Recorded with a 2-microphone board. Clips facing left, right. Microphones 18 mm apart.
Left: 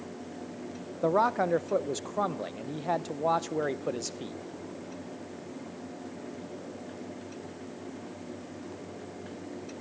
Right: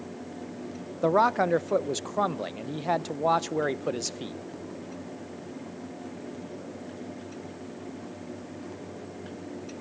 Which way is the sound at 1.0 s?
25° right (ahead or behind).